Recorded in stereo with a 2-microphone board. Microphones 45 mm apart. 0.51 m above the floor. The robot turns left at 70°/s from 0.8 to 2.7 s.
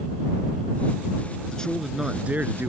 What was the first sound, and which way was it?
A man speaking, 20° left.